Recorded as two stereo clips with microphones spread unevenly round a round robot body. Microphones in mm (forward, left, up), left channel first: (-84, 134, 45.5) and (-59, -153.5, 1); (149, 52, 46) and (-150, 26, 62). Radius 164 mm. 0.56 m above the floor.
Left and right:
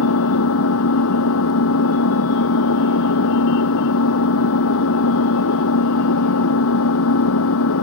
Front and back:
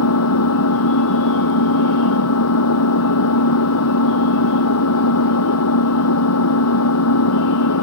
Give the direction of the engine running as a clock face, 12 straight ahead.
11 o'clock.